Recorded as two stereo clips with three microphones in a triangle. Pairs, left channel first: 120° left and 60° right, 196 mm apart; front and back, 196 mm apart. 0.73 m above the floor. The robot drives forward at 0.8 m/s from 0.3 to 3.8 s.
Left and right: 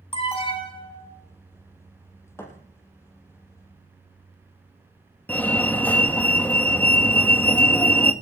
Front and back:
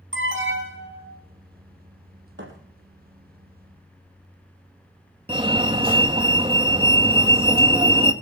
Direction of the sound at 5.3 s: 170° right.